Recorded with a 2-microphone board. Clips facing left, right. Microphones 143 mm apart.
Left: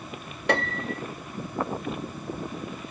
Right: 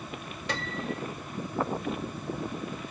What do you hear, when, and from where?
0.5 s a piano: 60° left (ahead or behind)